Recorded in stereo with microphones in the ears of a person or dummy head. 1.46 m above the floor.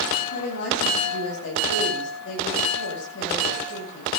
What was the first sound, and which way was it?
A woman speaking, 75° left (ahead or behind).